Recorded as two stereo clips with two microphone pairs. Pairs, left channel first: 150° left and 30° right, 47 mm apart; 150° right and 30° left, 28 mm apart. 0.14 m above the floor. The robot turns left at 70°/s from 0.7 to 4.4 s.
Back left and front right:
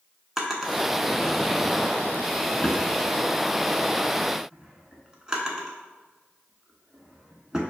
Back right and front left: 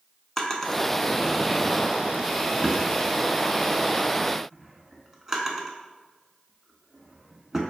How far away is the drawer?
About 0.7 m.